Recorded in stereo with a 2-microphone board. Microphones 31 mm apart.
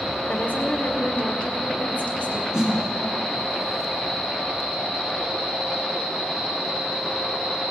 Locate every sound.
0.3 s a woman speaking: 70° left (ahead or behind), 2.5 m
2.5 s a snare drum: 30° right (ahead or behind), 3.5 m